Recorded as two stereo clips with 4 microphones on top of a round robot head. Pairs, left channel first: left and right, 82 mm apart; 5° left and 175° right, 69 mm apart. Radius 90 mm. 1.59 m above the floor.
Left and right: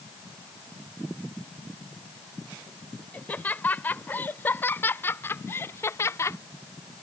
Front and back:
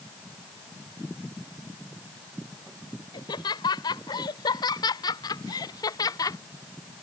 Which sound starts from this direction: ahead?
Laughter, at 3.1 s.